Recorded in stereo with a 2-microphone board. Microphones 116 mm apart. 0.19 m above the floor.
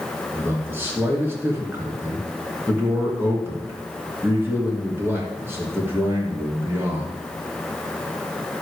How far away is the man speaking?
About 2.5 m.